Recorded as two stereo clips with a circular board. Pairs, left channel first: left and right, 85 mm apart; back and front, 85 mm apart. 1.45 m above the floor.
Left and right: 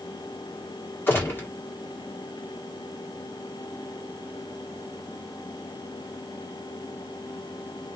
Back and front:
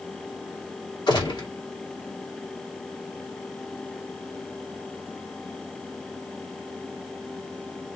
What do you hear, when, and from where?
1.1 s a gunshot: 155° left, 1.7 m